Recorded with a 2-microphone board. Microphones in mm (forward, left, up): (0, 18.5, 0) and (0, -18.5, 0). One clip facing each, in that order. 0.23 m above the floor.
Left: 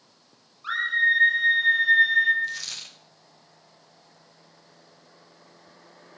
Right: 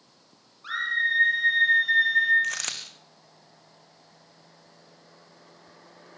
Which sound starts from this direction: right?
A dropped coin, at 2.4 s.